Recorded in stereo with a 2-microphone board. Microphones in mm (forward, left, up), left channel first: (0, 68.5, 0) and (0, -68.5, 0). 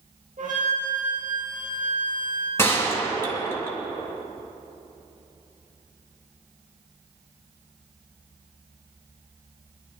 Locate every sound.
0.4 s a flute: 75° right (ahead or behind), 4 m
2.6 s a gunshot: 20° left (ahead or behind), 2.5 m